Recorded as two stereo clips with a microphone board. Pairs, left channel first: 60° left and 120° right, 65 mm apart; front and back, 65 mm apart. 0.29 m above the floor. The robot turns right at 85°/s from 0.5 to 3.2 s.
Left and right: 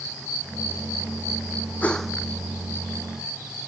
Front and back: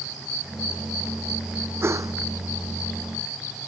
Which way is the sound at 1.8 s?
130° left.